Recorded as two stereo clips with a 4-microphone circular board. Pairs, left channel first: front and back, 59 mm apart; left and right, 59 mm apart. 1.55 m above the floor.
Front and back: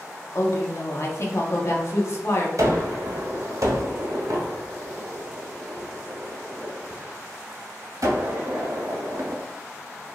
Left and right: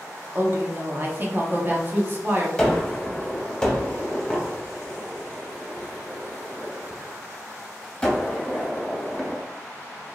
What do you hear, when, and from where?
0.3 s a woman speaking: 40° right, 0.7 m
2.6 s a gunshot: 160° left, 1.1 m